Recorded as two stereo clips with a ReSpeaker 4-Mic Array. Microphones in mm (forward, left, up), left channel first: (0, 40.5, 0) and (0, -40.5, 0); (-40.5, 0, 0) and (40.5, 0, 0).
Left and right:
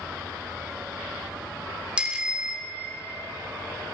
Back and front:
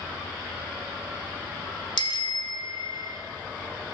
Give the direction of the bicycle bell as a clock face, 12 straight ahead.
6 o'clock.